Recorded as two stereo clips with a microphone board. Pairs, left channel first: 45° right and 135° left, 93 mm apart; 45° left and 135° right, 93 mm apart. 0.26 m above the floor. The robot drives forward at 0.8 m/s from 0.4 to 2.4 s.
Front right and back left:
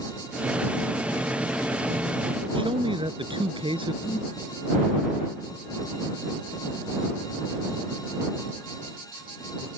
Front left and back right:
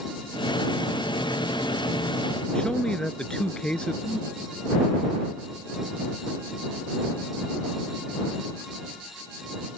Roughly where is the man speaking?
Behind left.